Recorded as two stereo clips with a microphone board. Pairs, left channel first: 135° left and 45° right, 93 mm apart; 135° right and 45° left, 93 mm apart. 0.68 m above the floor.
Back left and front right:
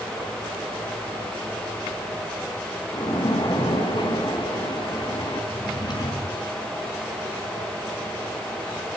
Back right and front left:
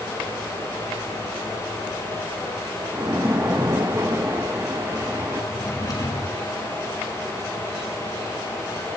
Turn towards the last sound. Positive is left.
turn(degrees=175)